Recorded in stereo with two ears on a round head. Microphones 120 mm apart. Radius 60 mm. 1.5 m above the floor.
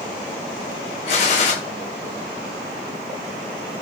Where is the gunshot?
50° left (ahead or behind), 5 m.